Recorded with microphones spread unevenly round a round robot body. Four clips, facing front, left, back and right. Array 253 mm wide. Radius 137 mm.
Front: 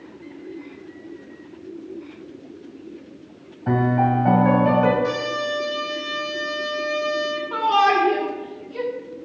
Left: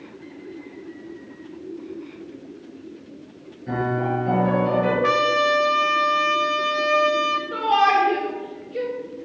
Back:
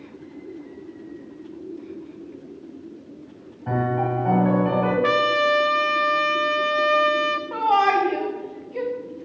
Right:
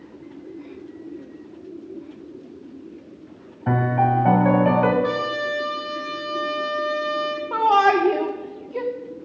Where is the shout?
95° right, 1.7 m.